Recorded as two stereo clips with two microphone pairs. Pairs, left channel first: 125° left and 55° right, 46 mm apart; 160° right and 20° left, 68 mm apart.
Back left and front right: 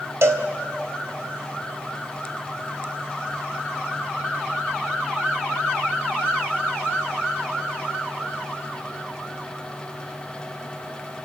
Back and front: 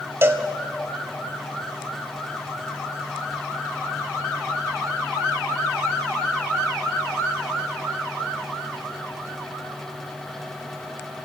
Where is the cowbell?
35° right, 1.5 m.